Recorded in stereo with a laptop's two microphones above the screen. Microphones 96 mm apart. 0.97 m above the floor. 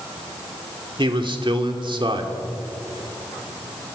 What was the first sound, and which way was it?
A man speaking, 60° right (ahead or behind).